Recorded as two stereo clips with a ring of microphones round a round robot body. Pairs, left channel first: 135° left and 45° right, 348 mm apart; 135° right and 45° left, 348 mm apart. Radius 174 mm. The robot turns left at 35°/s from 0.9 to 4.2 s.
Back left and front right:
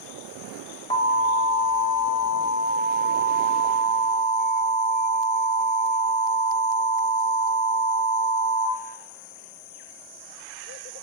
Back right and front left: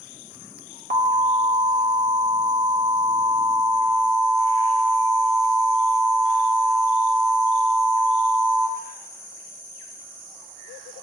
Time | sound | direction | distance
0.9 | an alarm | 80° left | 1.2 m